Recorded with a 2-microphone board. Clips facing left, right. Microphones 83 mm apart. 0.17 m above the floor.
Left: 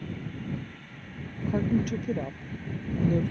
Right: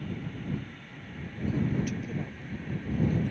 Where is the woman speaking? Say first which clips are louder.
Left 4 dB; 50° left (ahead or behind).